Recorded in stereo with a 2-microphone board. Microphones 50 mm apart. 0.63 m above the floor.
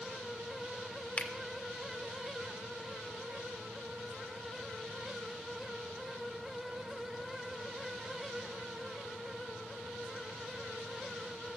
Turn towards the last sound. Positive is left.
turn(degrees=30)  # may be behind; listen again after turning